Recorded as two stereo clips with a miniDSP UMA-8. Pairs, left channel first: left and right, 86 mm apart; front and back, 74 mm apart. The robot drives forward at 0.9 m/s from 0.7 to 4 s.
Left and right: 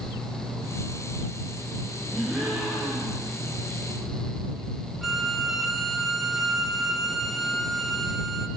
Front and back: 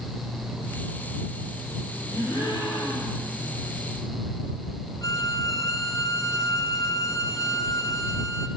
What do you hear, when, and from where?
2.1 s a gasp: 15° right, 3.5 m; by 3.3 s 20° right, 3 m
5.0 s a violin: straight ahead, 0.5 m